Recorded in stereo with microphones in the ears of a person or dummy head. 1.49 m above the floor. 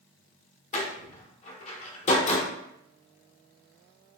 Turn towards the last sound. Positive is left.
turn(degrees=40)  # may be behind; listen again after turning